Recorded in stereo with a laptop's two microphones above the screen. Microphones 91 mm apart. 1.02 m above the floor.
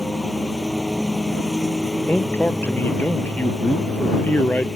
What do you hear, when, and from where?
0.0 s a lawn mower: 5° left (ahead or behind)
2.1 s a man speaking: 20° left (ahead or behind)